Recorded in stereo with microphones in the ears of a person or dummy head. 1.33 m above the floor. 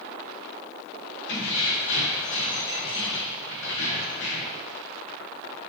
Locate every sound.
1.3 s keys jangling: 75° left (ahead or behind), 0.9 m